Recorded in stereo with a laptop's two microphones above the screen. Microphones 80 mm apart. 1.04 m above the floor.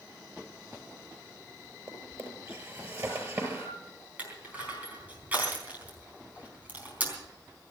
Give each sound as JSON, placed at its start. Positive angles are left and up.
{"t": 1.9, "sound": "a drawer", "side_deg": -40, "distance_m": 6.0}
{"t": 4.2, "sound": "crushing", "side_deg": -20, "distance_m": 4.0}